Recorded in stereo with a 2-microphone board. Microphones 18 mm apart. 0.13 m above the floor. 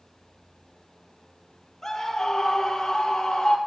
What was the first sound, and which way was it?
A scream, 15° left (ahead or behind).